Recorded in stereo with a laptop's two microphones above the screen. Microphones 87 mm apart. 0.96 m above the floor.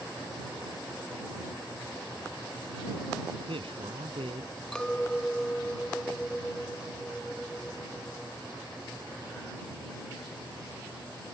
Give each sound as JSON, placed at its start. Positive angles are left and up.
{"t": 3.3, "sound": "a man speaking", "side_deg": -85}
{"t": 4.7, "sound": "a clink", "side_deg": 10}